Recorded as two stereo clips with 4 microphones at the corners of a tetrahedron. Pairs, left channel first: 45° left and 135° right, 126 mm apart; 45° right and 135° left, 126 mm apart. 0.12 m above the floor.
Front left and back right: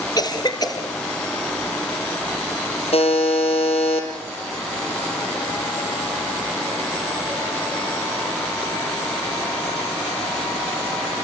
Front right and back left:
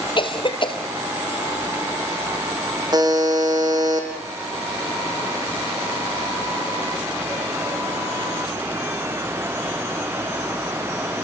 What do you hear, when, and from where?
0.2 s a cough: 5° right, 2.5 m
2.9 s a buzzer: 80° left, 4 m